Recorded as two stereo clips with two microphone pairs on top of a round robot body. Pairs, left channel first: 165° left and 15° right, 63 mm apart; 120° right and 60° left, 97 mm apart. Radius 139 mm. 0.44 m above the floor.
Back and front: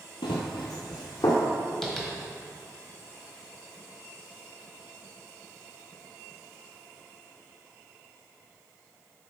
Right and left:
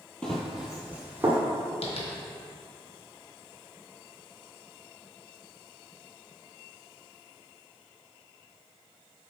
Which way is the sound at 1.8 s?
110° right.